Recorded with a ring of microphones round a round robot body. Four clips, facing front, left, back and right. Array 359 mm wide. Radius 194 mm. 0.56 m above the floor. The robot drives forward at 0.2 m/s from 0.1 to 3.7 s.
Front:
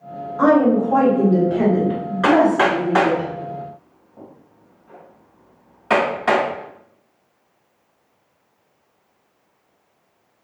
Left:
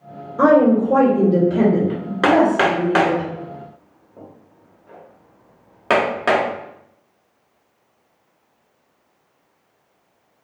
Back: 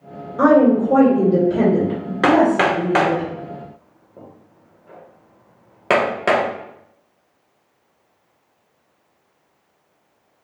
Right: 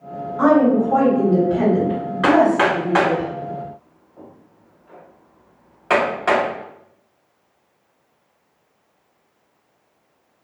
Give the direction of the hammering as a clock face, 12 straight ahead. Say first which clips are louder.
Even, even; 7 o'clock.